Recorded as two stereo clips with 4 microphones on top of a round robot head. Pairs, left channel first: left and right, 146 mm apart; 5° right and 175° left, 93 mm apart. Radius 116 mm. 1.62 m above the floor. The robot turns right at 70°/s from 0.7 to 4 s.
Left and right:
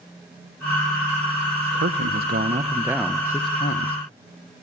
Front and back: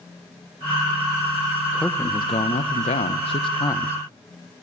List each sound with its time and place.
1.7 s a man speaking: 95° right, 1.4 m; by 4.0 s 65° left, 1.4 m